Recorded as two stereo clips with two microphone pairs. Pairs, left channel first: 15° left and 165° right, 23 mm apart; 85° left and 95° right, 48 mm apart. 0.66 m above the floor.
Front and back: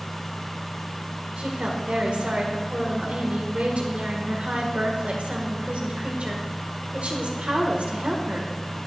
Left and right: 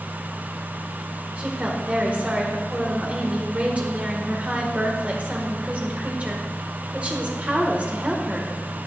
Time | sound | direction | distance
1.4 | a woman speaking | 155° right | 1.7 m